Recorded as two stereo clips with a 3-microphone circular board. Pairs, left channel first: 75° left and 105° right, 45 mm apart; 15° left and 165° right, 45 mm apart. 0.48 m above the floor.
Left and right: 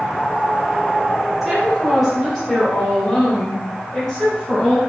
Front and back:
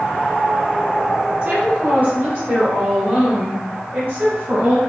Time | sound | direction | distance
1.4 | a woman speaking | 175° left | 1.1 m